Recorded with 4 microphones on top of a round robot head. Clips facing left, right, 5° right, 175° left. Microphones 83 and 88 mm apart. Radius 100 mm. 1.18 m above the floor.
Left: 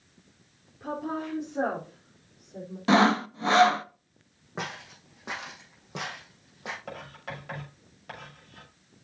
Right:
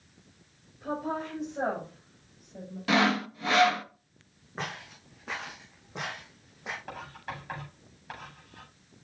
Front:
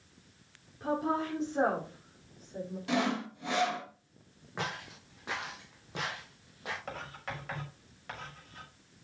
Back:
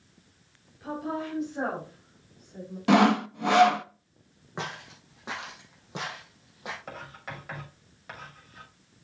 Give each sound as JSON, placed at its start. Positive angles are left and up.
{"t": 0.8, "sound": "a woman speaking", "azimuth_deg": 50, "distance_m": 3.5}
{"t": 2.9, "sound": "sawing", "azimuth_deg": 150, "distance_m": 0.6}
{"t": 4.6, "sound": "footsteps", "azimuth_deg": 105, "distance_m": 4.0}
{"t": 6.9, "sound": "writing", "azimuth_deg": 90, "distance_m": 6.0}